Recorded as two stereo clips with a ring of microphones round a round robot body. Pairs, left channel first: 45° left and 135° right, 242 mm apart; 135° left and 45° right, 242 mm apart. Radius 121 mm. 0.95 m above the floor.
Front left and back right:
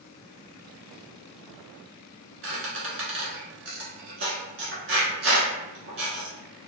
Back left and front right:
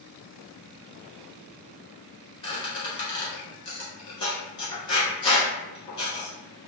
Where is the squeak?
160° right, 1.3 m.